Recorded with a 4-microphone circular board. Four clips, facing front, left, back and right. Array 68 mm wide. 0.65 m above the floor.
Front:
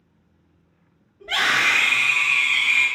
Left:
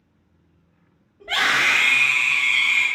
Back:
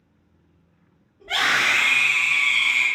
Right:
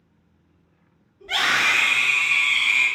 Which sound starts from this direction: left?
A scream, at 1.2 s.